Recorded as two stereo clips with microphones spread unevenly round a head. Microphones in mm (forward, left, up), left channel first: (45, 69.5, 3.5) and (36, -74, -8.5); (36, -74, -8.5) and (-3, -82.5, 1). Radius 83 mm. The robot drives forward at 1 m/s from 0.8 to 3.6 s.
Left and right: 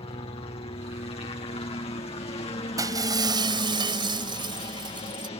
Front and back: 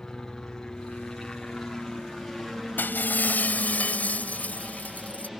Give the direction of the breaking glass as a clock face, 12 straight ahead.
1 o'clock.